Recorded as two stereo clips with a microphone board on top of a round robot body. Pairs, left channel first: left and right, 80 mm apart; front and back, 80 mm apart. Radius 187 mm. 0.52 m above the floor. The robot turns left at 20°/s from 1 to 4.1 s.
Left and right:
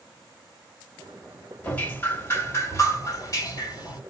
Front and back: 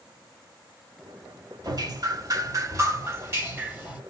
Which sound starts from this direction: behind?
Dripping, at 1.6 s.